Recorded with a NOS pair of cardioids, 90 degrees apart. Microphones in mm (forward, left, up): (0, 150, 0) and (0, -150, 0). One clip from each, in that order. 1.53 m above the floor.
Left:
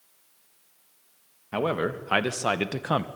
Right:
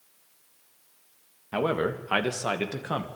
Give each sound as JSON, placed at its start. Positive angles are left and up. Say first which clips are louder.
{"t": 1.5, "sound": "a man speaking", "louder": "even", "azimuth_deg": 5, "distance_m": 2.5}